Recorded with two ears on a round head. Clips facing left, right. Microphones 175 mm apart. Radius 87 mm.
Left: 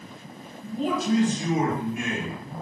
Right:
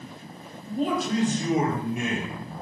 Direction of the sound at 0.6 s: 45° right (ahead or behind).